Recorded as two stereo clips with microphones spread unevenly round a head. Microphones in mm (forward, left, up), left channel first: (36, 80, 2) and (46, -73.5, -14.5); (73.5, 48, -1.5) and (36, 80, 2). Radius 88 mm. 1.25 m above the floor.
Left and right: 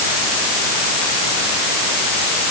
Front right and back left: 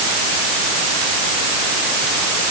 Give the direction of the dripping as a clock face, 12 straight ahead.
No dripping in this recording.